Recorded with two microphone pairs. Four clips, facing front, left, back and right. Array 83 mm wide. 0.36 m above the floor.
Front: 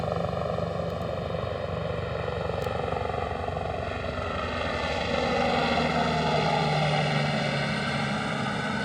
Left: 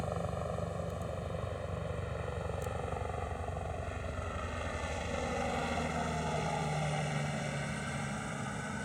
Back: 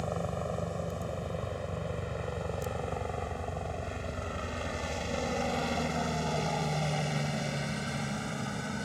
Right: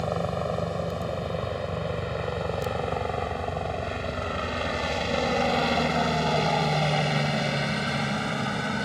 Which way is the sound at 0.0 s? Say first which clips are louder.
Right 9 dB, front 6 dB; 55° right.